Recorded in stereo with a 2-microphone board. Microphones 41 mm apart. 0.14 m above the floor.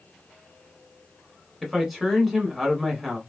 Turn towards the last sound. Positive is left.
turn(degrees=0)  # may be behind; listen again after turning